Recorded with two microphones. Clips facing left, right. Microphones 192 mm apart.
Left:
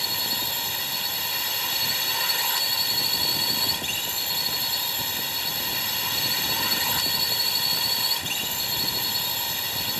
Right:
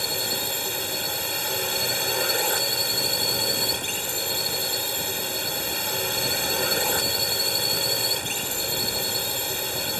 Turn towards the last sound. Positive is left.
turn(degrees=-50)  # may be behind; listen again after turning